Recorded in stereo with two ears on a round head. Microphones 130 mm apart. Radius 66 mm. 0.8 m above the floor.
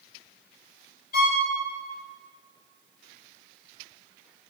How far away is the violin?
About 3 m.